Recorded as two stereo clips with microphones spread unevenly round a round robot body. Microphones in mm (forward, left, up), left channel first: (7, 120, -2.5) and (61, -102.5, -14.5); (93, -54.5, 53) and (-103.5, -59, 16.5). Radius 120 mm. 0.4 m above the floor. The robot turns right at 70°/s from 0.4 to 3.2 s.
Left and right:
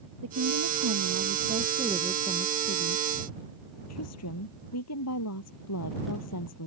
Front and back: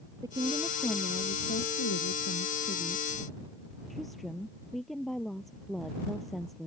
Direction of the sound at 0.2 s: 105° right.